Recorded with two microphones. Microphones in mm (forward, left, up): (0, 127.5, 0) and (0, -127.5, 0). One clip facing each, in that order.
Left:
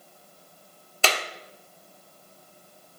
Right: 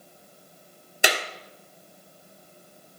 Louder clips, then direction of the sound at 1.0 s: Right 1 dB; 15° right (ahead or behind).